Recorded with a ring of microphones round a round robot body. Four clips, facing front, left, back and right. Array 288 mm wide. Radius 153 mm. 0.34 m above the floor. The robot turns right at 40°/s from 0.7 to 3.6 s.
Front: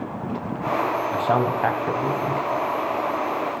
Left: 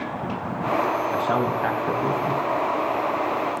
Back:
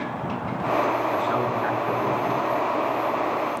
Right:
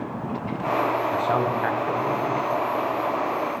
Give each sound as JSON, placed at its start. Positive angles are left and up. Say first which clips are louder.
{"t": 1.1, "sound": "a man speaking", "louder": "even, front 2 dB", "azimuth_deg": -30, "distance_m": 3.0}